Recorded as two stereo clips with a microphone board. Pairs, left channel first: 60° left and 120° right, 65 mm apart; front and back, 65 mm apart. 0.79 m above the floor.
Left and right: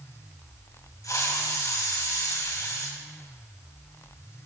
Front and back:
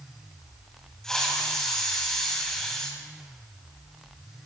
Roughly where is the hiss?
Left.